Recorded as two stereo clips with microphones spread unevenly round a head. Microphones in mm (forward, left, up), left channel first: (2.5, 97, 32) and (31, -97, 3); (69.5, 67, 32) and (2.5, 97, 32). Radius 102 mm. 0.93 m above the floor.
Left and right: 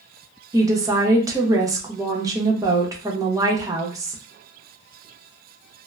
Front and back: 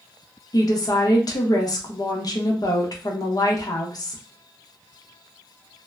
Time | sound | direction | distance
0.5 | a woman speaking | 20° right | 0.8 m